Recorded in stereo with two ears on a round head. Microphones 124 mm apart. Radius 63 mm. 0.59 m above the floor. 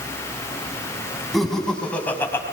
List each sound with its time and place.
1.3 s laughter: centre (ahead or behind), 5.5 m; by 2.4 s 20° left (ahead or behind), 5 m